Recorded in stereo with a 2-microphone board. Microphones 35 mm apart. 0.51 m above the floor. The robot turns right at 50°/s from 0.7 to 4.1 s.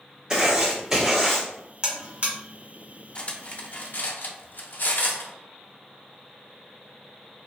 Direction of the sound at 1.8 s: 25° right (ahead or behind).